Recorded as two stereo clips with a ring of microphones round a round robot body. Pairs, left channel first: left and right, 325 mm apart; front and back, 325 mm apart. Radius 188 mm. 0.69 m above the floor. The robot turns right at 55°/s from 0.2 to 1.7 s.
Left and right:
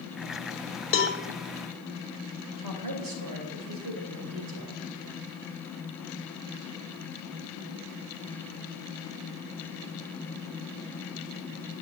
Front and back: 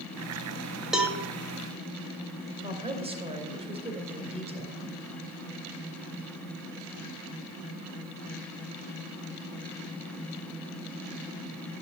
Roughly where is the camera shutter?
I don't hear a camera shutter.